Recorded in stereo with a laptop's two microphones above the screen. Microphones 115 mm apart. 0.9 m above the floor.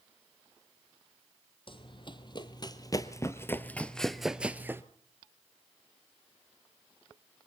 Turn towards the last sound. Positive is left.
turn(degrees=-20)  # may be behind; listen again after turning